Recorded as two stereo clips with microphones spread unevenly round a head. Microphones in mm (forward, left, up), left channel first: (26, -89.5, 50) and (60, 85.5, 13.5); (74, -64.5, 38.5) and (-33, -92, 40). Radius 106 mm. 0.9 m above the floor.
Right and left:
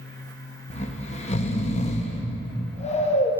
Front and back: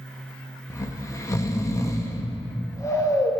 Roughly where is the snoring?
Ahead right.